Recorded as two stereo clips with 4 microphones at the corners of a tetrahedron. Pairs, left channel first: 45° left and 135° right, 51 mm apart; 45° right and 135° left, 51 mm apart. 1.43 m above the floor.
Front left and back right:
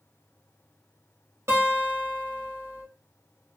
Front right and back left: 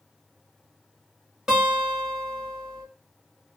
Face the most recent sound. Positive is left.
turn(degrees=-145)